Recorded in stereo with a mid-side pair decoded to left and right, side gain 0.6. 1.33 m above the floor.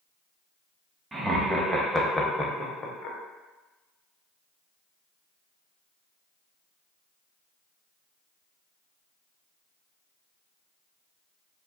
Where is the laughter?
20° right, 1.0 m; by 3.2 s 55° left, 0.8 m.